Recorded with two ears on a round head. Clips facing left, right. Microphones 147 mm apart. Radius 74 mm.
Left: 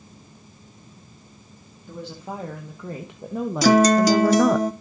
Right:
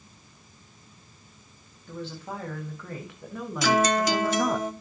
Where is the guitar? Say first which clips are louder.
Left 7 dB; 30° left (ahead or behind), 1.0 m.